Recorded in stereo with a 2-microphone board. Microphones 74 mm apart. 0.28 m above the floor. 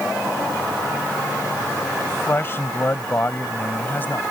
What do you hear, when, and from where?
2.1 s a man speaking: 35° left (ahead or behind); by 4.3 s 25° left (ahead or behind)